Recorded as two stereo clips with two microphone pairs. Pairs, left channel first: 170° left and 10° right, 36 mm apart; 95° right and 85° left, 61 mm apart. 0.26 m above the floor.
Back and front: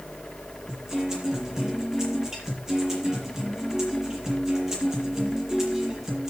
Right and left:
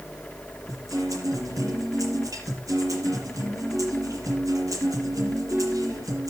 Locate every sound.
0.7 s a guitar: 70° left, 6.5 m